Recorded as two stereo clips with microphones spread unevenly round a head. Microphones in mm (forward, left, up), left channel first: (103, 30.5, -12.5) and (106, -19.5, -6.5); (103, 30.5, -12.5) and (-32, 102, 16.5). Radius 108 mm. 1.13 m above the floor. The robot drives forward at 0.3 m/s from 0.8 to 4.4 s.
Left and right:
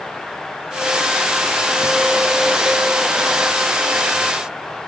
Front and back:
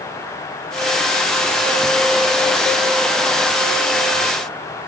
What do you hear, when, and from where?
Only background noise.